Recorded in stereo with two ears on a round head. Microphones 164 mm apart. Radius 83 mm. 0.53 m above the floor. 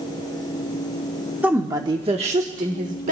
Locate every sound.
1.4 s a woman speaking: 10° right (ahead or behind), 1.0 m; by 3.1 s 45° right (ahead or behind), 1.4 m